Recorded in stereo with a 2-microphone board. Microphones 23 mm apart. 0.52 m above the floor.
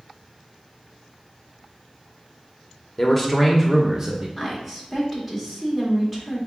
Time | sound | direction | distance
3.0 | a man speaking | 20° left (ahead or behind) | 0.8 m
4.4 | a woman speaking | 5° right (ahead or behind) | 1.6 m